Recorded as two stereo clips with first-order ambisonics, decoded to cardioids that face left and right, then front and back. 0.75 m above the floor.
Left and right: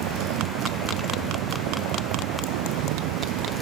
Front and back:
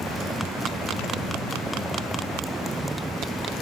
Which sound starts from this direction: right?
A vehicle, at 0.0 s.